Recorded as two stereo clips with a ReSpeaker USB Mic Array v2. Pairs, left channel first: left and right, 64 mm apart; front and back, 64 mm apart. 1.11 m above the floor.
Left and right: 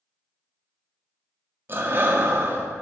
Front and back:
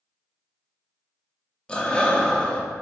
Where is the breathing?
65° right, 0.6 m.